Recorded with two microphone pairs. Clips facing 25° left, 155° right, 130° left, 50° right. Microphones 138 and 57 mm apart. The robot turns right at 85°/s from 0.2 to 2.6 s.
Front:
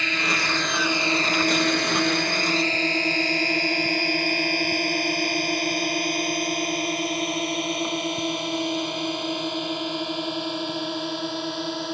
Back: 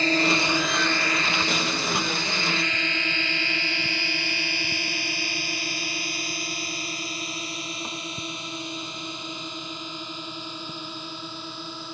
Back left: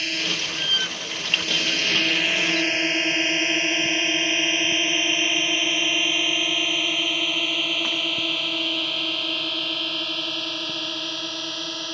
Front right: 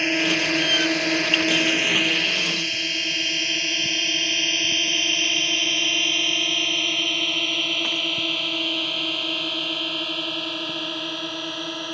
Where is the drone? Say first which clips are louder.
Back 5 dB, front right 6 dB; 105° right; by 11.9 s 30° left.